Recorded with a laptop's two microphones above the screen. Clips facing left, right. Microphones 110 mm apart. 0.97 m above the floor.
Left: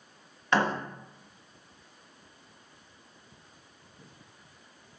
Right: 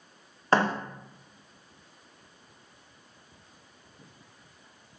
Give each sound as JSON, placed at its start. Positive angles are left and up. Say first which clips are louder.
{"t": 0.5, "sound": "a thud", "louder": "right 2 dB", "side_deg": -40, "distance_m": 0.7}